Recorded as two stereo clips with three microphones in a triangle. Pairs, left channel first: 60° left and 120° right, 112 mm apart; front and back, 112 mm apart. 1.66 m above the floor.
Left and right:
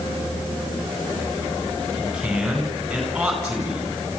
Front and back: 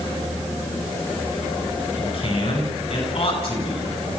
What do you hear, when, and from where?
2.0 s a man speaking: 35° right, 9.5 m